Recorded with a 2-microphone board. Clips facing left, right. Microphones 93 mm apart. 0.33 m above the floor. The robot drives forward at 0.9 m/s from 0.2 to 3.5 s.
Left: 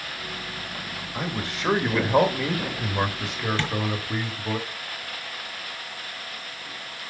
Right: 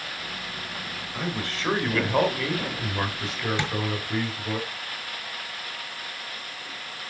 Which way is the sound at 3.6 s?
20° right (ahead or behind).